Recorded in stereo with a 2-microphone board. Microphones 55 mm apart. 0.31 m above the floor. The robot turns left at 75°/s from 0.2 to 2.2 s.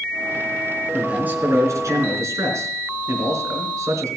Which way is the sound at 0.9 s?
10° right.